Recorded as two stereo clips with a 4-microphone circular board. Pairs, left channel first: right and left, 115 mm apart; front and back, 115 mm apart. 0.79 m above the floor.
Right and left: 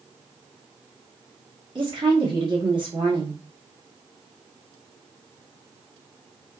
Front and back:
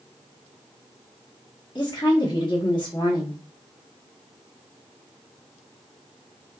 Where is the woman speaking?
45° left, 1.3 m.